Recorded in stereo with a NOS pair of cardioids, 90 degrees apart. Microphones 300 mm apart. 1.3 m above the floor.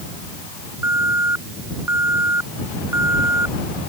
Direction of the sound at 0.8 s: 10° right.